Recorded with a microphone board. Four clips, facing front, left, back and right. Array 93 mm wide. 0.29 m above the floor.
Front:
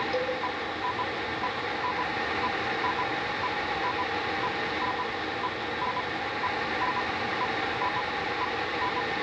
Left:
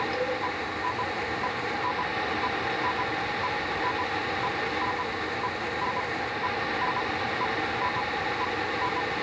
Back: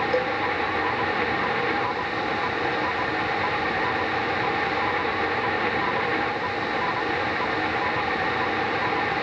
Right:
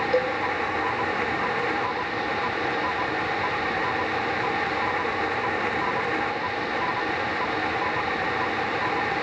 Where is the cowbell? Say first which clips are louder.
Right 6 dB, back 5 dB; 100° right, 3 m.